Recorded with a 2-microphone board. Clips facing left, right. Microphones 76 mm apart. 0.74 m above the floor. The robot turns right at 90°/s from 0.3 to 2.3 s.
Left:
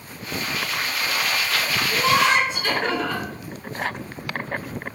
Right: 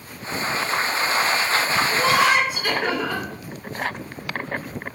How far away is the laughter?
About 0.6 m.